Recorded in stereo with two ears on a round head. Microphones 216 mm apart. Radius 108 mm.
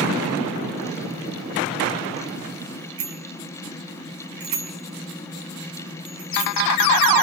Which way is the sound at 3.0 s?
65° right (ahead or behind).